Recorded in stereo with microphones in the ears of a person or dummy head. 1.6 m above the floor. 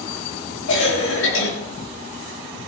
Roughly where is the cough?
Left.